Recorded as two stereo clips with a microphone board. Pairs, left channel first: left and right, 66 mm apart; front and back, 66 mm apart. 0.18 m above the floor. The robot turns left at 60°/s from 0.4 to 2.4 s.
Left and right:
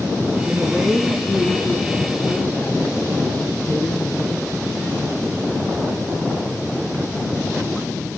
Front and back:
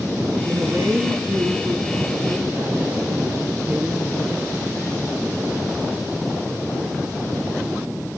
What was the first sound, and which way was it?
A woman speaking, 130° right.